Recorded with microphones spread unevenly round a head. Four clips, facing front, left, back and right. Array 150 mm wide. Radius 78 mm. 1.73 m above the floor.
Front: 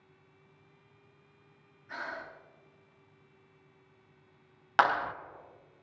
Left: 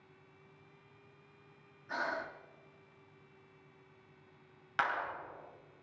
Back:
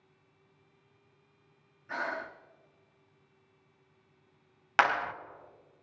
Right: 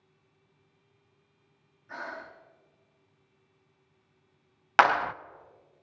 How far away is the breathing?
About 1.3 m.